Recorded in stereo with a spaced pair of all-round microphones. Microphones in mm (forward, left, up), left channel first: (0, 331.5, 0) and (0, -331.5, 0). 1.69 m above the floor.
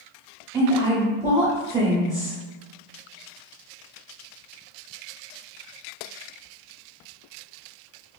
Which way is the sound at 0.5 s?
5° right (ahead or behind).